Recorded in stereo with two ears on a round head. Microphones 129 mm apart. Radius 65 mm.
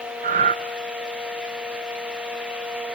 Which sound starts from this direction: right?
Breathing, at 0.2 s.